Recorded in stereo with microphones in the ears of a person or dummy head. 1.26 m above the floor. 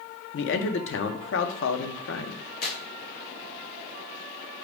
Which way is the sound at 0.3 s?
60° left (ahead or behind).